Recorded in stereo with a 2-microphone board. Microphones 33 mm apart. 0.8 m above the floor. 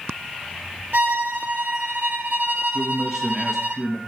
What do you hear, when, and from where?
0.9 s a violin: 65° right (ahead or behind), 2.5 m
2.7 s a man speaking: 10° right (ahead or behind), 1.0 m